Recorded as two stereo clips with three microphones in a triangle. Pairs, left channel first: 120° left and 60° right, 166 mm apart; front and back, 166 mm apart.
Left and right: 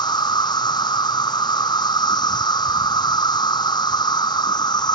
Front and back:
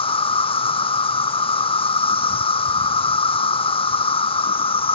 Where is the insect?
55° left.